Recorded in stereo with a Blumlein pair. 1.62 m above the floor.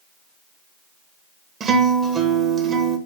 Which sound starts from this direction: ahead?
A guitar, at 1.6 s.